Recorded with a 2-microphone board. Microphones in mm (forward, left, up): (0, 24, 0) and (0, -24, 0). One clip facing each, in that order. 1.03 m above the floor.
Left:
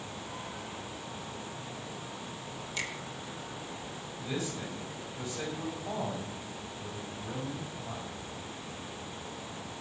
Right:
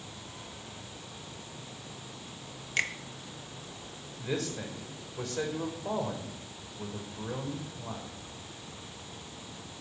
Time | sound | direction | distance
2.8 | a finger snap | 55° right (ahead or behind) | 1.0 m
4.2 | a man speaking | 75° right (ahead or behind) | 5 m